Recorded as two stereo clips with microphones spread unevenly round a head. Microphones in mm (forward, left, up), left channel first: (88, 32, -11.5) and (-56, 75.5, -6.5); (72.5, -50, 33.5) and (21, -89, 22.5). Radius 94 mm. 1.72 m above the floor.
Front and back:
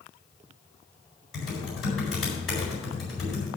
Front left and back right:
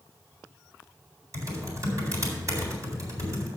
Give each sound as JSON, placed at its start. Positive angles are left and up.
{"t": 1.3, "sound": "typing on a keyboard", "azimuth_deg": -105, "distance_m": 4.0}